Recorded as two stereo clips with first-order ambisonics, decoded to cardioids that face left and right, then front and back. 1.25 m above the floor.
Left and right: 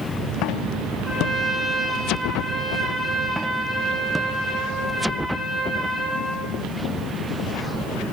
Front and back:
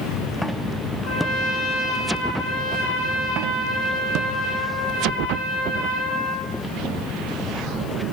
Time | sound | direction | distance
1.0 | a trumpet | 5° left | 3.5 m